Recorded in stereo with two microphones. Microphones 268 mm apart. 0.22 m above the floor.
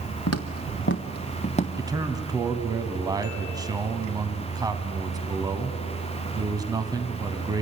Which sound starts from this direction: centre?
A man speaking, at 1.8 s.